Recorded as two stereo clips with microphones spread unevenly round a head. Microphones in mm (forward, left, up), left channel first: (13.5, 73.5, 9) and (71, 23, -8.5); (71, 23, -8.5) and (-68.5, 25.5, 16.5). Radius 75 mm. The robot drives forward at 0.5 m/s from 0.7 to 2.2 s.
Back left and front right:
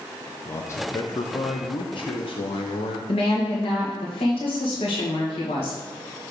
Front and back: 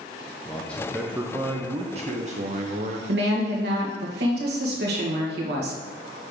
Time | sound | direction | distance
0.5 | a man speaking | 80° left | 0.6 m
3.1 | a woman speaking | 170° left | 1.7 m